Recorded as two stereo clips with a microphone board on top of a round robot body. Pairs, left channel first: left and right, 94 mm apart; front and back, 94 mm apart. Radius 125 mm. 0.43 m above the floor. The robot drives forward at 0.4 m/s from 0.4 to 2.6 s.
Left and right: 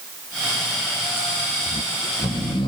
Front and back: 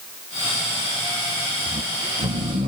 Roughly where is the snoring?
Behind left.